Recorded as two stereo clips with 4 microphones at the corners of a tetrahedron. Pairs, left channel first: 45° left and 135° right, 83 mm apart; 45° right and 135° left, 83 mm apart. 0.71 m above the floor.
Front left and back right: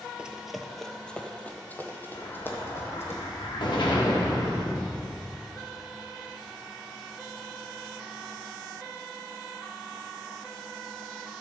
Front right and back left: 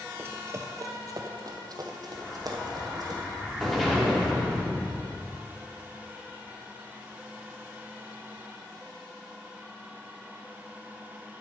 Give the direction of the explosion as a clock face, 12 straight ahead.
11 o'clock.